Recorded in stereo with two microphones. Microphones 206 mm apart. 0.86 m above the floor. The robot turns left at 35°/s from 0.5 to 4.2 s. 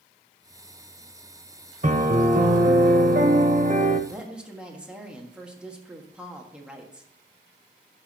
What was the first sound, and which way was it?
A piano, 55° right.